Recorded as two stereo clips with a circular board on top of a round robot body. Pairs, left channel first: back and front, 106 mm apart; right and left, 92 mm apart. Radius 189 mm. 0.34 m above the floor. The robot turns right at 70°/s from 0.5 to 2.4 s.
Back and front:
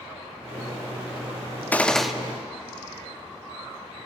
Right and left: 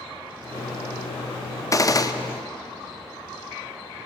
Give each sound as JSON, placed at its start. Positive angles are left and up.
{"t": 1.7, "sound": "a gunshot", "azimuth_deg": -115, "distance_m": 0.8}